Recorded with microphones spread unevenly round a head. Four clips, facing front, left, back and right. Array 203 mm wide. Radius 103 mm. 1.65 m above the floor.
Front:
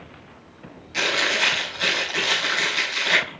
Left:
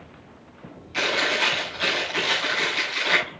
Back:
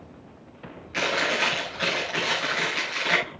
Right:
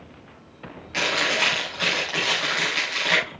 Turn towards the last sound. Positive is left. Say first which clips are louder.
# even, front 1 dB
turn(degrees=-110)